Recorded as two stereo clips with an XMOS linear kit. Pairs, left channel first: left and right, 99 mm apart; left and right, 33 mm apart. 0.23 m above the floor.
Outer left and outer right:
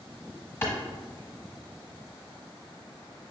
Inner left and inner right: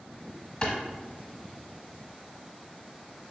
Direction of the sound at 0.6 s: 25° left (ahead or behind).